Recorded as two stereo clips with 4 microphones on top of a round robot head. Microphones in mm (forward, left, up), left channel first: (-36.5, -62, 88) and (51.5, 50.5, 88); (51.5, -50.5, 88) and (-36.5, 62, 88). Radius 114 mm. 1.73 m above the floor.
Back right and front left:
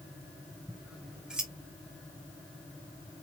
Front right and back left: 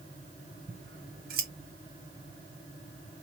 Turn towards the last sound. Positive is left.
turn(degrees=135)